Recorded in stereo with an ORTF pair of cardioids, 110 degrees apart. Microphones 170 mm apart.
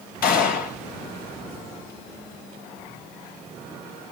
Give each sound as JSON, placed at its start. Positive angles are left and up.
{"t": 0.2, "sound": "a gunshot", "azimuth_deg": 65, "distance_m": 3.0}